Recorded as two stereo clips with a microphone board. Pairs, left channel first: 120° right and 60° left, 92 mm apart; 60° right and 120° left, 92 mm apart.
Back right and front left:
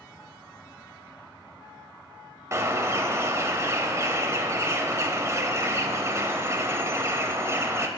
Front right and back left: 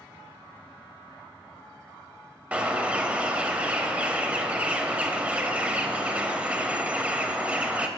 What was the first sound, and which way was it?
A bird, 60° left.